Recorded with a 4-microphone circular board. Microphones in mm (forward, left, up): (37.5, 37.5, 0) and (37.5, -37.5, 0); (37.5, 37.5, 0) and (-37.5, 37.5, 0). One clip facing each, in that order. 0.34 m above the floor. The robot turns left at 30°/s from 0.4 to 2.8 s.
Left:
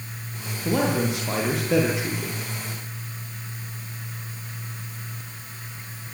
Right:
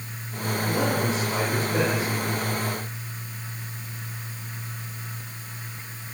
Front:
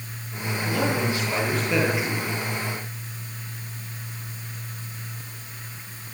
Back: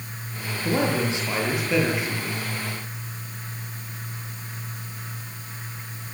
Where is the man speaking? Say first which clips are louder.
Left 3 dB, back 2 dB; 125° left, 8.5 m; by 2.4 s 75° left, 8.5 m.